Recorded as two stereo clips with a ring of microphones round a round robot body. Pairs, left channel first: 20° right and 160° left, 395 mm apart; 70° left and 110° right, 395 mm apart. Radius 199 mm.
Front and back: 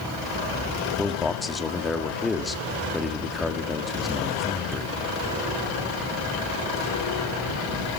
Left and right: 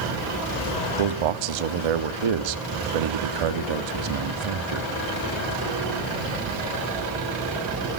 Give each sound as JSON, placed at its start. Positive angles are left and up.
{"t": 1.0, "sound": "a man speaking", "azimuth_deg": -115, "distance_m": 1.3}